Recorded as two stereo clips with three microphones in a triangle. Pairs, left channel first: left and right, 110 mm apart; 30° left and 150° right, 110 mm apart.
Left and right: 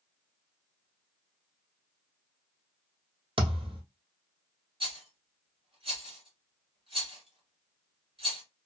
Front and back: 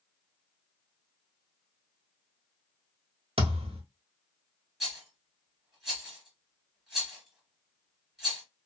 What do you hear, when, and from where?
3.4 s a thud: 125° right, 1.2 m
4.8 s a rattle: 65° right, 1.8 m